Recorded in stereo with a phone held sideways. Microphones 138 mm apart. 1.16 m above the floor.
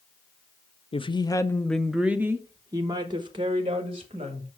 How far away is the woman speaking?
About 0.7 m.